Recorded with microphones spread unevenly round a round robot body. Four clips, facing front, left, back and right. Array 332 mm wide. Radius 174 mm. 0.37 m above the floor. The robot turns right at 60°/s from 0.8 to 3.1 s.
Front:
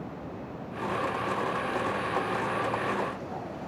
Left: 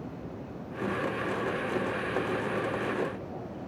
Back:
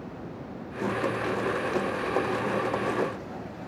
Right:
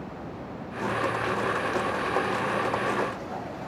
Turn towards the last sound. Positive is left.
No sound to turn to.